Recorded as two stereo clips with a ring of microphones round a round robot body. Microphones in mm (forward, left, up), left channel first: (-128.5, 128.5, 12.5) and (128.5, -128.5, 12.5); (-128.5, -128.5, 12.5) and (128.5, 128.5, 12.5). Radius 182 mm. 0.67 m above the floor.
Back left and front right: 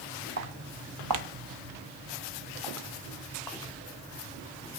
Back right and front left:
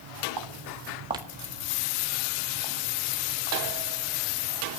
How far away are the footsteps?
About 1.8 m.